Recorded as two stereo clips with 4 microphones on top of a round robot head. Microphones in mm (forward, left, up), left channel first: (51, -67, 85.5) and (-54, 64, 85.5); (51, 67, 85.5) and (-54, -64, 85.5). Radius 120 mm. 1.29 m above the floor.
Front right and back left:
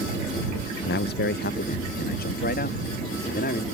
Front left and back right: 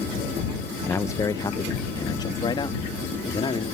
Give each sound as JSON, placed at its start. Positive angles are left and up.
{"t": 0.9, "sound": "a man speaking", "azimuth_deg": -25}